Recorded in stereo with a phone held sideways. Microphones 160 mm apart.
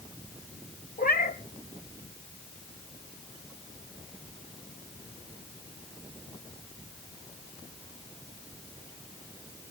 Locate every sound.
1.0 s a cat meowing: 65° left (ahead or behind), 1.7 m